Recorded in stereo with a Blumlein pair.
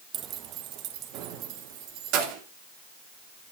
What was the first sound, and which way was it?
Keys jangling, 30° right.